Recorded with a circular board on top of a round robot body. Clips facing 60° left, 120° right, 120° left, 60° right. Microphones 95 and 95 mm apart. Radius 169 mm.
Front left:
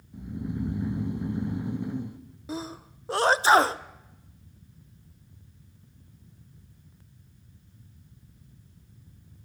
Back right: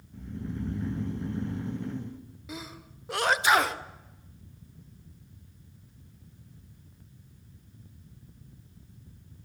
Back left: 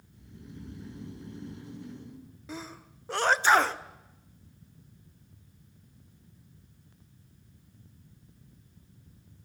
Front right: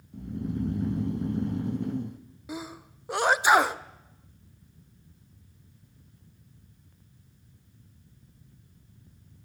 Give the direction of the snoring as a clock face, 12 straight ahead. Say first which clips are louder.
Front left 3 dB, front right 16 dB; 1 o'clock.